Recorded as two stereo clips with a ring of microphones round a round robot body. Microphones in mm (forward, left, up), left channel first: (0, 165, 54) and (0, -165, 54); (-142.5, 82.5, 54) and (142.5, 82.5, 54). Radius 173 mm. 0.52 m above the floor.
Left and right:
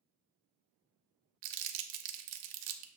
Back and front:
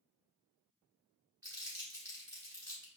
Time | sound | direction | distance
1.4 | crumpling | 80° right | 0.6 m